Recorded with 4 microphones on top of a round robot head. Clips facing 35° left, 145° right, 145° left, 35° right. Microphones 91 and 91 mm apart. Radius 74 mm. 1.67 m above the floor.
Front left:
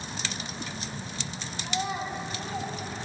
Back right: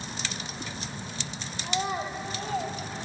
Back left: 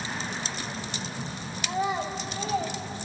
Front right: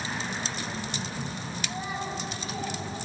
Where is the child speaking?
170° left, 4 m; by 2.8 s 175° left, 5.5 m.